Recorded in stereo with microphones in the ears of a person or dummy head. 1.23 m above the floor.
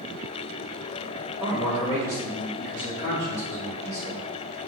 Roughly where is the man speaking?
Centre.